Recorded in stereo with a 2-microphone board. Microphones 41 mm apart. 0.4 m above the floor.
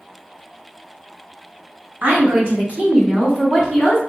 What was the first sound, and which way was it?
A woman speaking, 45° right (ahead or behind).